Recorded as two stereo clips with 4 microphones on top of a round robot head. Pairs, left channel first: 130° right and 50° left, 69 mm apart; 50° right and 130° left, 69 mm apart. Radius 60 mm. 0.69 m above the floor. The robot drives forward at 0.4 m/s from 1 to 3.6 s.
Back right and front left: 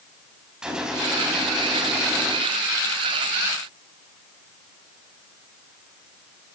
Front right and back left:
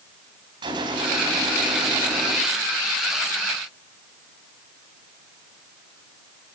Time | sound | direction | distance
0.6 | a gunshot | 130° left | 4 m